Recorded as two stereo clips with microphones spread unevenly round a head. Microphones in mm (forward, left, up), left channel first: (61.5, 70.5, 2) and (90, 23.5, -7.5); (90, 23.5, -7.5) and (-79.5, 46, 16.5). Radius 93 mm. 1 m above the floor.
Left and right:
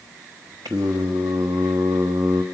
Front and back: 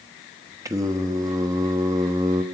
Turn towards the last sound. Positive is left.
turn(degrees=-110)